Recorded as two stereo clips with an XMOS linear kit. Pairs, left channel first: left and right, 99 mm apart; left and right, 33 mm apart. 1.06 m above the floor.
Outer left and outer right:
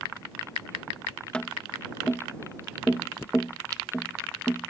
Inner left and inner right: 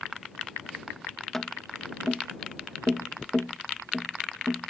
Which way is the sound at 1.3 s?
10° left (ahead or behind).